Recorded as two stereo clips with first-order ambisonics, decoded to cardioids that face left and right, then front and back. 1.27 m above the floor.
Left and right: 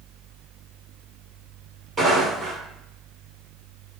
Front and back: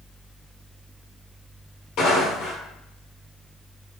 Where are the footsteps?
20° right, 1.8 m.